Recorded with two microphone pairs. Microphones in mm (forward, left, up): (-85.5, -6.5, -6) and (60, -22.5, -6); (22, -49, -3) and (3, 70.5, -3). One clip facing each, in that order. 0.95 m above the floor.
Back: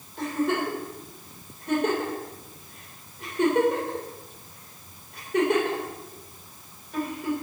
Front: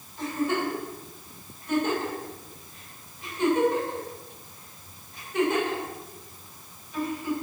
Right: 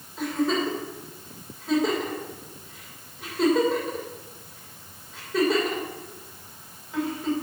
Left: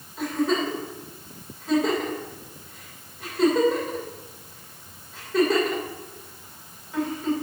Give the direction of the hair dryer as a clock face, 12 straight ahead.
I don't hear a hair dryer.